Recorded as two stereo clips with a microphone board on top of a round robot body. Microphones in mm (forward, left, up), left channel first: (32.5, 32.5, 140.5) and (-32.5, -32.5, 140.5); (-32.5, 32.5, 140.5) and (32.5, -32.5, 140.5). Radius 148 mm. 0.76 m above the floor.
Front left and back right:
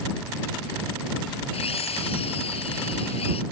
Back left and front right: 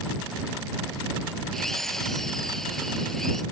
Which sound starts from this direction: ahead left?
A drill, at 1.5 s.